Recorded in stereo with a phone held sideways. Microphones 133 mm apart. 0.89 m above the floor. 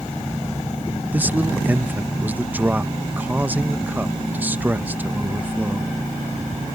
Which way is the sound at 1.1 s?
15° right (ahead or behind).